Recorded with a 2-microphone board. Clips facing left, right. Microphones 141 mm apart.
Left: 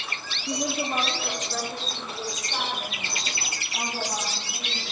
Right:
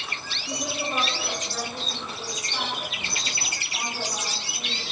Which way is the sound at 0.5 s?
45° left (ahead or behind).